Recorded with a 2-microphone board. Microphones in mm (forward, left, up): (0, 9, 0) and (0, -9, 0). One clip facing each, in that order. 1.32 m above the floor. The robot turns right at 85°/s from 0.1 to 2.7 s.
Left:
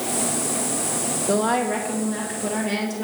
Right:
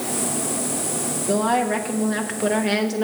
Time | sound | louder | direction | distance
1.3 | a woman speaking | right 1 dB | 150° left | 1.9 m